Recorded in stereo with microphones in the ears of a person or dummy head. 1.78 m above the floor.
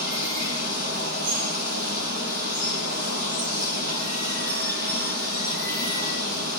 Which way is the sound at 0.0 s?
50° right (ahead or behind).